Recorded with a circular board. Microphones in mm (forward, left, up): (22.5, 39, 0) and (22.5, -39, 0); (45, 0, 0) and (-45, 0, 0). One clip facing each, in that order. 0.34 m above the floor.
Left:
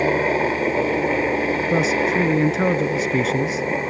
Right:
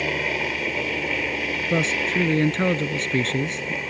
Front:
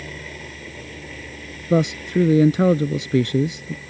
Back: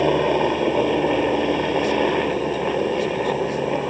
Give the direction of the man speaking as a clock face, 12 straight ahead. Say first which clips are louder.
Left 3 dB, back 1 dB; 12 o'clock.